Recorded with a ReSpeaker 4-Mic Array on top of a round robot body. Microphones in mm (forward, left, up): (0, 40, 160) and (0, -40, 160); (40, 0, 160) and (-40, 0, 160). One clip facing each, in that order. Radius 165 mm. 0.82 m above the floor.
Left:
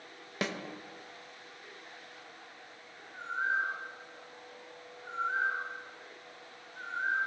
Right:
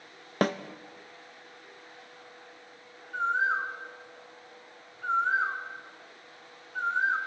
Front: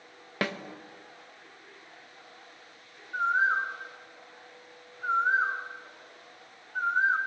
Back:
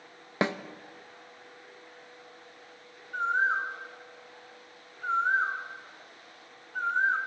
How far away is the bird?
About 1.8 m.